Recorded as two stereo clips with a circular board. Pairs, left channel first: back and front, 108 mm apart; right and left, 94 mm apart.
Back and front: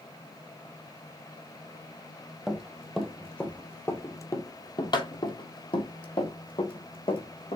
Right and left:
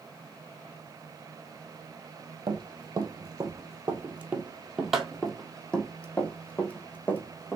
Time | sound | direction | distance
2.5 | running footsteps | 75° left | 1.4 m